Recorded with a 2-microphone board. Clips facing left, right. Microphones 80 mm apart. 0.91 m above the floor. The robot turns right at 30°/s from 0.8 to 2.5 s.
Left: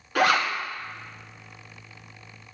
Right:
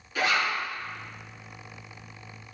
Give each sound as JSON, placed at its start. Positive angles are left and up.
{"t": 0.1, "sound": "a zipper", "side_deg": 70, "distance_m": 1.8}